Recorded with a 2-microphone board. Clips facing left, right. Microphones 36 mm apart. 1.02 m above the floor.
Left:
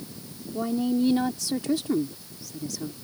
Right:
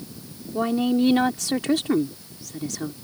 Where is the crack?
I don't hear a crack.